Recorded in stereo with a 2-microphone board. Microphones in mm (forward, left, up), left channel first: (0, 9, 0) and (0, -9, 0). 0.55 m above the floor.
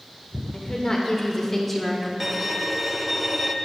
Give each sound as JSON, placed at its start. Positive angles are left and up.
{"t": 0.5, "sound": "a woman speaking", "side_deg": 55, "distance_m": 2.0}
{"t": 2.2, "sound": "a violin", "side_deg": -15, "distance_m": 0.6}